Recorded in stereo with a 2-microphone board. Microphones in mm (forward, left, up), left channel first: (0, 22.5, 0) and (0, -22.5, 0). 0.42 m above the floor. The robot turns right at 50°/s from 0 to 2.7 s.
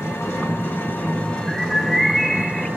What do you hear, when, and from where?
0.0 s an engine running: 85° left, 4 m; by 2.8 s 140° right, 4 m
1.5 s a bird: 10° right (ahead or behind), 0.8 m; by 2.7 s 20° left (ahead or behind), 0.8 m